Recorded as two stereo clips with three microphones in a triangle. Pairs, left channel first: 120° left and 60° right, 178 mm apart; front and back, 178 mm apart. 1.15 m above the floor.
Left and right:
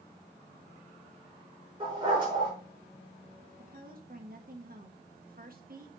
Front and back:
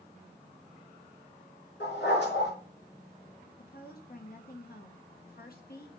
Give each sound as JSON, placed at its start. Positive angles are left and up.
{"t": 1.8, "sound": "a dog barking", "azimuth_deg": 0, "distance_m": 5.0}
{"t": 3.6, "sound": "a woman speaking", "azimuth_deg": -30, "distance_m": 1.1}